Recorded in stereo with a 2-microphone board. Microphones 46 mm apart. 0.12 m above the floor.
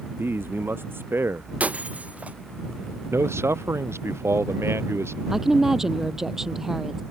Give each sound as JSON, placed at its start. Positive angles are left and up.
{"t": 0.1, "sound": "a man speaking", "side_deg": -60}
{"t": 1.6, "sound": "breaking glass", "side_deg": -30}
{"t": 3.1, "sound": "a man speaking", "side_deg": -80}
{"t": 5.3, "sound": "a woman speaking", "side_deg": -10}